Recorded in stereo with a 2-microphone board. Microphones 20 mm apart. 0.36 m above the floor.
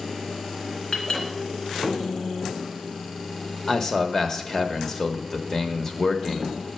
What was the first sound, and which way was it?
A clink, 40° left (ahead or behind).